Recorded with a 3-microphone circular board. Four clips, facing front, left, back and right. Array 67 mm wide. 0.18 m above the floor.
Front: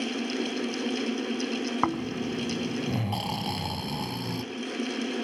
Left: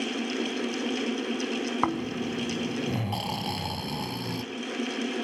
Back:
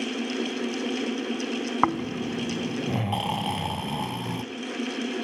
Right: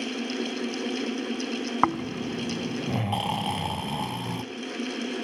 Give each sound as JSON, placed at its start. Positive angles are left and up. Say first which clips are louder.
{"t": 1.8, "sound": "snoring", "louder": "right 6 dB, back 5 dB", "azimuth_deg": -135, "distance_m": 0.8}